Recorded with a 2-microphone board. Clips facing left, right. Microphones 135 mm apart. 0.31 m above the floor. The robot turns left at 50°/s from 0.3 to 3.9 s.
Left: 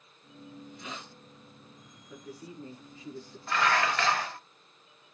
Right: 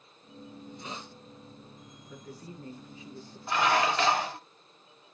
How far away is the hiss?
About 2.5 m.